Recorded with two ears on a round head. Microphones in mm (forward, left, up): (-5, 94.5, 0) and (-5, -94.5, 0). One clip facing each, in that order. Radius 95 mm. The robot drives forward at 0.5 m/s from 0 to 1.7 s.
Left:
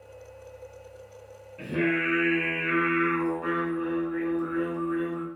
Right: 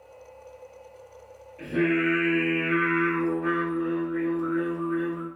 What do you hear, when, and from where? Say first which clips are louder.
1.6 s singing: right 3 dB; 55° left (ahead or behind), 1.5 m